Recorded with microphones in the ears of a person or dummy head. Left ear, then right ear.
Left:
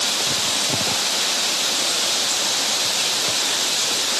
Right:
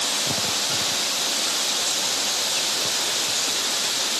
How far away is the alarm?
I don't hear an alarm.